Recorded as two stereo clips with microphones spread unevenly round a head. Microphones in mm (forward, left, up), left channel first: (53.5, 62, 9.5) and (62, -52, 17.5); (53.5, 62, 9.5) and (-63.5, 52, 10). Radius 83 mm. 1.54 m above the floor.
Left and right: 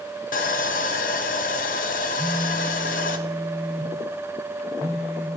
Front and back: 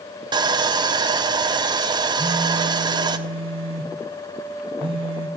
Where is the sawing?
130° left, 0.7 m.